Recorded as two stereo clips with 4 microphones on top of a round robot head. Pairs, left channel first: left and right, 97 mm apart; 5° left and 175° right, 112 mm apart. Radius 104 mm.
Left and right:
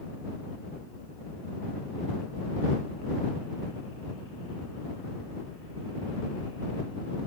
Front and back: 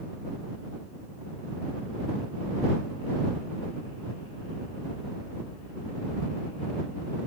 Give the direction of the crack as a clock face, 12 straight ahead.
No crack in this recording.